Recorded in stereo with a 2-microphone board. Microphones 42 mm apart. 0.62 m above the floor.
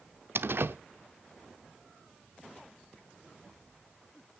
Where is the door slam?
70° right (ahead or behind), 0.7 m.